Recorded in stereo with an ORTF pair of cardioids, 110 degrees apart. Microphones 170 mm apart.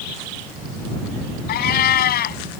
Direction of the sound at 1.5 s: 65° left.